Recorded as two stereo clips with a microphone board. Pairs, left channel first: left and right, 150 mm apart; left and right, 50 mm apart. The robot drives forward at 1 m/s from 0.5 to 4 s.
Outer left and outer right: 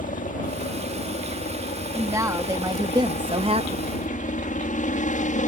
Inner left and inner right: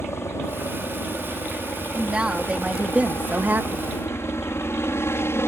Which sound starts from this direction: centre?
A woman speaking, at 1.9 s.